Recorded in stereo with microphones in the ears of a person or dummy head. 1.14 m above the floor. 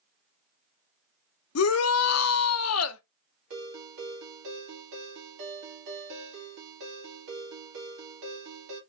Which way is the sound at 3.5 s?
80° right.